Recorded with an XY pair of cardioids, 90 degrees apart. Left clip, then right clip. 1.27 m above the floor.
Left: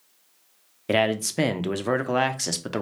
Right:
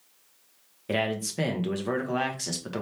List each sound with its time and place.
0.9 s a man speaking: 50° left, 0.7 m